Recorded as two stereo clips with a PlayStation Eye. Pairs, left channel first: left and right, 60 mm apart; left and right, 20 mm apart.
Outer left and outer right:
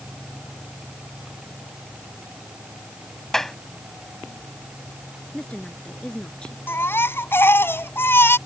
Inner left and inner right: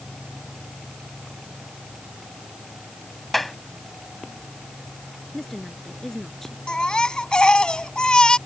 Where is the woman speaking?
15° left (ahead or behind).